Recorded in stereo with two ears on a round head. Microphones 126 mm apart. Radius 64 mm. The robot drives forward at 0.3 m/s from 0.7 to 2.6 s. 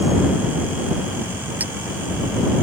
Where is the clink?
10° right (ahead or behind).